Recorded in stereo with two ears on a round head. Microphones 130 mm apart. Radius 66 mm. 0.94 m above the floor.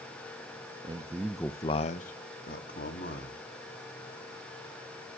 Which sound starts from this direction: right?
A man speaking, at 0.8 s.